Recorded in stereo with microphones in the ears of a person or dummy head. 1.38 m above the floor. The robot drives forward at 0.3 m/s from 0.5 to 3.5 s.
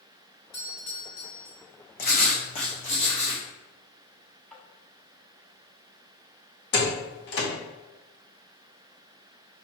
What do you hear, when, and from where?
0.5 s a doorbell: 50° left (ahead or behind), 1.7 m; by 1.6 s 55° left (ahead or behind), 1.6 m
2.0 s writing: 45° left (ahead or behind), 0.7 m; by 3.5 s 30° left (ahead or behind), 1.0 m
4.5 s tapping: 10° left (ahead or behind), 1.0 m
6.7 s a door slam: 60° left (ahead or behind), 1.0 m